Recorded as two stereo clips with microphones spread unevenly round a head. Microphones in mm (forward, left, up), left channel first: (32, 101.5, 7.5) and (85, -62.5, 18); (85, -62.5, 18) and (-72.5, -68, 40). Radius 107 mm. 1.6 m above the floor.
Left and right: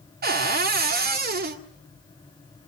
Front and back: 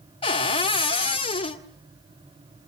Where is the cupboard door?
55° right, 1.9 m.